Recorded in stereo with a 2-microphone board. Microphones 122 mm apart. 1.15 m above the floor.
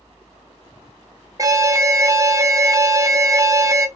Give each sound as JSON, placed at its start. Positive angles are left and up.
{"t": 1.4, "sound": "an alarm", "side_deg": -30, "distance_m": 0.9}